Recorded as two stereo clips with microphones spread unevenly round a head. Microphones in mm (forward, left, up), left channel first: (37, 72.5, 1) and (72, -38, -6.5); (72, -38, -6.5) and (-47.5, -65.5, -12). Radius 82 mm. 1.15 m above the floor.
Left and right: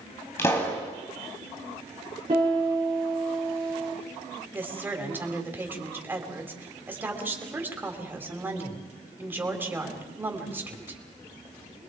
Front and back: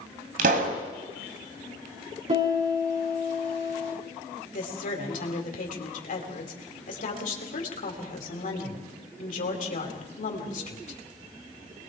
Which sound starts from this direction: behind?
A pop, at 0.4 s.